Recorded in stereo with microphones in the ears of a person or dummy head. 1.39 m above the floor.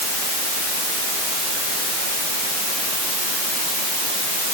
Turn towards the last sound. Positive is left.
No sound to turn to.